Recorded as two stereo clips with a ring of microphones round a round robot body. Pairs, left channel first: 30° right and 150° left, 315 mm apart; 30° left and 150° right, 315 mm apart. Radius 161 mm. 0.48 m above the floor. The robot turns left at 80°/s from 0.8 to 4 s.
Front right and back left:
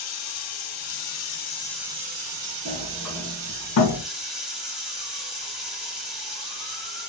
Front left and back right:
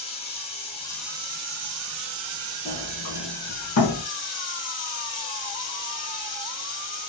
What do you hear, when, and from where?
0.0 s running water: 45° right, 1.7 m; by 7.1 s 60° left, 1.7 m
2.6 s a sliding door: 90° left, 1.2 m; by 4.0 s 20° right, 1.2 m